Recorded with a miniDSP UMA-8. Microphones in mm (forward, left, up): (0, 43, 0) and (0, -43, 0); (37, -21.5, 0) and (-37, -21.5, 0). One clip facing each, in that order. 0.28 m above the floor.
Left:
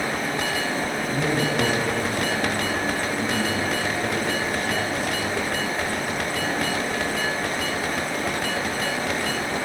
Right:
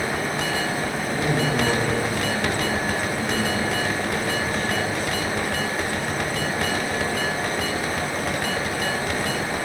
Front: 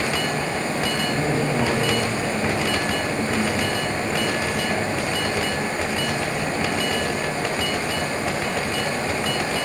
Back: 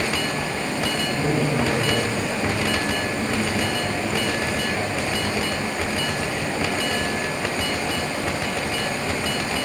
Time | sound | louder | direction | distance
0.0 | running water | right 1 dB, front 1 dB | 10° right | 1.5 m
1.1 | a man speaking | right 1 dB, back 1 dB | 85° left | 2 m